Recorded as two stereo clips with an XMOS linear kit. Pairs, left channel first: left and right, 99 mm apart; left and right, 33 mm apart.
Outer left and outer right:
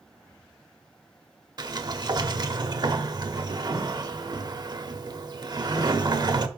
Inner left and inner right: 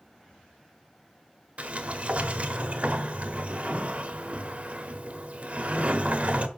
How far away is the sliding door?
About 0.8 m.